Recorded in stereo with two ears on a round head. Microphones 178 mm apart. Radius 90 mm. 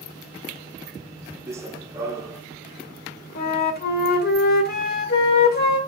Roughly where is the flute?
Left.